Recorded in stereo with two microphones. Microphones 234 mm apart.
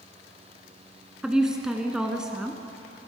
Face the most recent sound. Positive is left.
turn(degrees=-5)  # may be behind; listen again after turning